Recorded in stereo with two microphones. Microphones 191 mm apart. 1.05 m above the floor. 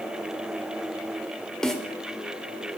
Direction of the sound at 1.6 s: 5° left (ahead or behind).